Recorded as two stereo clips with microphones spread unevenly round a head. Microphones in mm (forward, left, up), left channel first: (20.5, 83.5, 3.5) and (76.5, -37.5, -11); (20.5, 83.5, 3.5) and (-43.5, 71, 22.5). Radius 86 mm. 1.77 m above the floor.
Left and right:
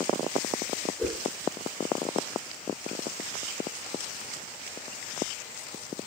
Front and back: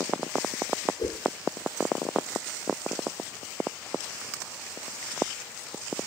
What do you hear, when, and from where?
1.0 s a whoosh: 25° left, 3 m